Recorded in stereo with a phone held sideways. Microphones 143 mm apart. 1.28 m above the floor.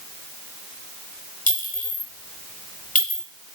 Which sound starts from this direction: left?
A clink, at 1.5 s.